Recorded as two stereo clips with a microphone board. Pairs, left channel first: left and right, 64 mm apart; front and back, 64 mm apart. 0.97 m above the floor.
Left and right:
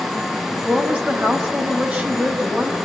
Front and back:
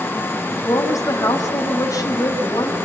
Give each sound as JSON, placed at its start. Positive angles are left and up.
{"t": 0.7, "sound": "a woman speaking", "azimuth_deg": -25, "distance_m": 5.0}